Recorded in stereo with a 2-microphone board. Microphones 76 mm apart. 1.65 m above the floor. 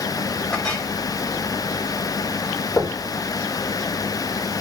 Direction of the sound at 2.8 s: 30° left (ahead or behind).